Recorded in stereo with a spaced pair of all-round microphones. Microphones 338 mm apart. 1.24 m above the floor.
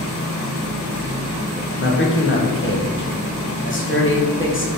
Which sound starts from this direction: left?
A man speaking, at 1.8 s.